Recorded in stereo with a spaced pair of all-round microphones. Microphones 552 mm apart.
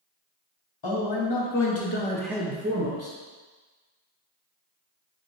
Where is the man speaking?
50° left (ahead or behind), 1.0 m; by 3.1 s 50° right (ahead or behind), 0.6 m.